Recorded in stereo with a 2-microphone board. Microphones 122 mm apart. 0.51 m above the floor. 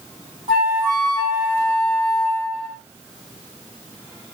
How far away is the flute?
About 2 m.